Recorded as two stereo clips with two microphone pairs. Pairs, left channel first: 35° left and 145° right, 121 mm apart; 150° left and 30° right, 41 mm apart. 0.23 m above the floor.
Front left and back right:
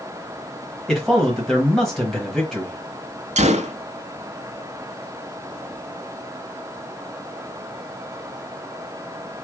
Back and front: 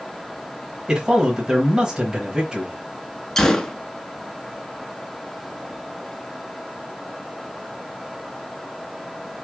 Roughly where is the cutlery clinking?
No cutlery clinking in this recording.